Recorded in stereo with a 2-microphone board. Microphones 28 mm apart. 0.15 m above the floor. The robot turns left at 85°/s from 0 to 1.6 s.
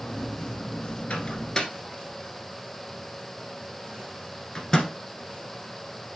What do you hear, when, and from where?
1.1 s a microwave: 55° left (ahead or behind), 1.6 m; by 4.9 s 25° left (ahead or behind), 1.6 m